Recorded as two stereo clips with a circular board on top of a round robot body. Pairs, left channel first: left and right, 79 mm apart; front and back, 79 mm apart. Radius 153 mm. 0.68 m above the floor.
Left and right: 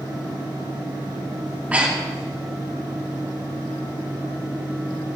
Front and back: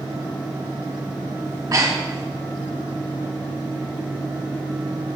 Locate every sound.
1.5 s breathing: 155° right, 1.6 m